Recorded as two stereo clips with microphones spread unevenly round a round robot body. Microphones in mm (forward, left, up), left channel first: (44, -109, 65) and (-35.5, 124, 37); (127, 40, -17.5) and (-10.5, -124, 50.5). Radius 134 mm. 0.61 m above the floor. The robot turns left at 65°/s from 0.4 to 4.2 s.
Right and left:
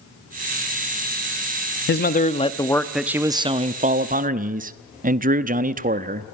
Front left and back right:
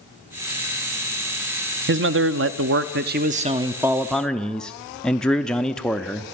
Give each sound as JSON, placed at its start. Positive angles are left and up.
{"t": 1.9, "sound": "a man speaking", "azimuth_deg": -100, "distance_m": 0.8}